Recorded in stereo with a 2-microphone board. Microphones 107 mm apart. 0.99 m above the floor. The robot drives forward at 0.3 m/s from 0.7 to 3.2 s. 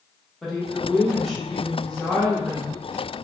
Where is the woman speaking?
5° left (ahead or behind), 0.9 m; by 2.8 s centre (ahead or behind), 1.5 m.